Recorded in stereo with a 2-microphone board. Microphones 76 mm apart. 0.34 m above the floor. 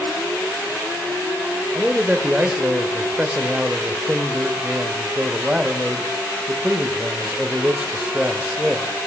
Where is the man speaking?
15° right (ahead or behind), 0.9 m.